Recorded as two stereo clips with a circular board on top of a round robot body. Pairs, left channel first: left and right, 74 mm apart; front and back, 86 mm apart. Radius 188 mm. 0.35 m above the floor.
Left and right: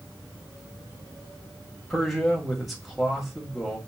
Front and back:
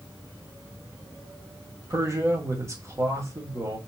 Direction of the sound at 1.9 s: Straight behind.